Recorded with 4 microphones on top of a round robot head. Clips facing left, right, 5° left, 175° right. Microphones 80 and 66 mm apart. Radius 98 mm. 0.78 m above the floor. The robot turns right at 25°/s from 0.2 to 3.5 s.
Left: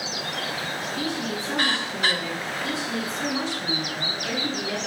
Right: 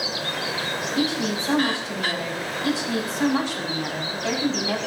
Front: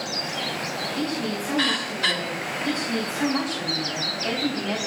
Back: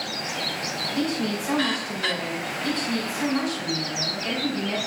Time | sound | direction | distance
0.9 | a woman speaking | 115° right | 5.5 m